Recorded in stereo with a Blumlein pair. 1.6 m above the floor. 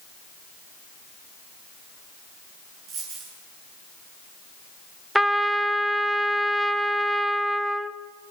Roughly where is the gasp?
I don't hear a gasp.